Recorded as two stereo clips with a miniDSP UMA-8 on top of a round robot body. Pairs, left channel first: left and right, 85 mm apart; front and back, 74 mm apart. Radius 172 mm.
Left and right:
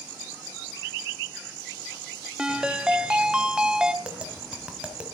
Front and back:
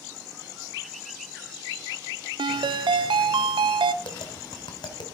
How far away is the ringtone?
About 0.6 m.